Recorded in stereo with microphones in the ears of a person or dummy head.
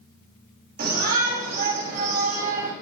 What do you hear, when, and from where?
0.8 s a shout: 50° right (ahead or behind), 6 m; by 2.7 s 45° right (ahead or behind), 5 m